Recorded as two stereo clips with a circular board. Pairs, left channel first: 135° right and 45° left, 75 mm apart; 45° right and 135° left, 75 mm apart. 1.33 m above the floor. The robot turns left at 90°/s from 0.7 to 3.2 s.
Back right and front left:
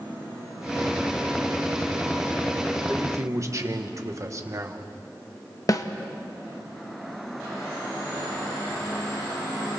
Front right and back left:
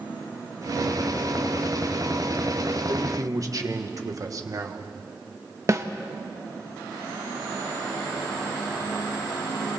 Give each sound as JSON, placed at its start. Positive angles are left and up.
{"t": 2.9, "sound": "a man speaking", "azimuth_deg": 120, "distance_m": 1.5}
{"t": 5.7, "sound": "a snare drum", "azimuth_deg": -175, "distance_m": 1.0}